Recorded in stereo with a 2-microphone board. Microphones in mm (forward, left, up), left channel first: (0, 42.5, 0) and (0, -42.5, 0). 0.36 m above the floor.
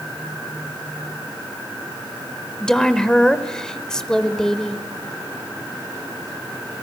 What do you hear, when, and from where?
2.6 s a woman speaking: 10° left (ahead or behind), 1.1 m